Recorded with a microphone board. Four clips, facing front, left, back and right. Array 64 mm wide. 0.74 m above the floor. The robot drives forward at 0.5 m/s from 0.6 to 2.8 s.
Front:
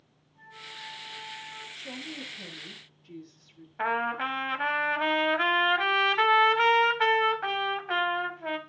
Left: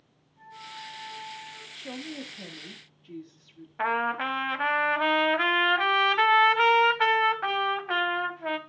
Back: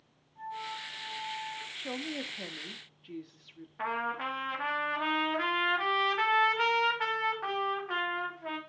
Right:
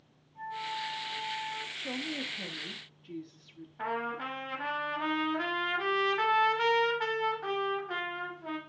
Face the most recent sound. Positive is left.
turn(degrees=70)